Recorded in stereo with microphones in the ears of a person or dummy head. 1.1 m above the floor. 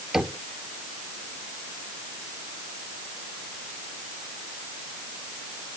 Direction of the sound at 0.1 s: 5° right (ahead or behind).